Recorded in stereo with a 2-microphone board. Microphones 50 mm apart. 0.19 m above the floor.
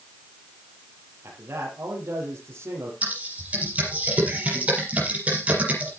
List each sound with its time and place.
1.2 s a man speaking: 50° right (ahead or behind), 5 m
3.0 s typing on a keyboard: 25° right (ahead or behind), 5 m